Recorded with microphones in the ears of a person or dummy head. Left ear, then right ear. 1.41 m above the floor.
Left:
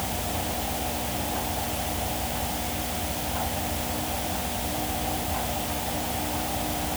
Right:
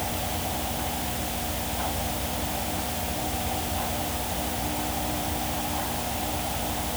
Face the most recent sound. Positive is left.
No sound to turn to.